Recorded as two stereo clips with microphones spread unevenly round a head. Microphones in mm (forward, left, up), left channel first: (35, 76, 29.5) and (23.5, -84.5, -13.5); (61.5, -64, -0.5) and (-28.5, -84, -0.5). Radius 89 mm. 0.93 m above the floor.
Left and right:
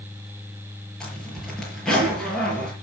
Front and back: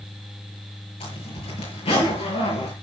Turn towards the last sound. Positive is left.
turn(degrees=0)